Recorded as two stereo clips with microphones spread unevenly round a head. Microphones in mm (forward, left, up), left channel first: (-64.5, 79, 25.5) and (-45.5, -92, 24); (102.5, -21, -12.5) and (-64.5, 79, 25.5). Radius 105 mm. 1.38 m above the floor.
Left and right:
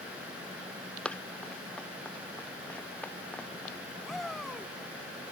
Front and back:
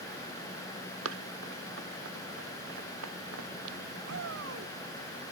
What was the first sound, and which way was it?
Running footsteps, straight behind.